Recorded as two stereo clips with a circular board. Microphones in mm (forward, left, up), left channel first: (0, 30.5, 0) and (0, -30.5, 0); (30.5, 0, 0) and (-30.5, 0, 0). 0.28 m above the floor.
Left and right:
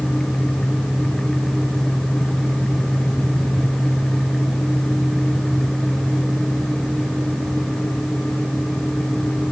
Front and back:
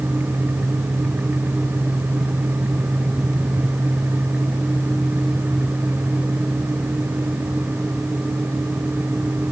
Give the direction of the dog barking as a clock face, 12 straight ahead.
I don't hear a dog barking.